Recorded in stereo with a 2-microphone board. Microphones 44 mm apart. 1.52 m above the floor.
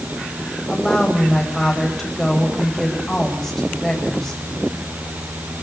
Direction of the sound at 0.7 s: 5° left (ahead or behind).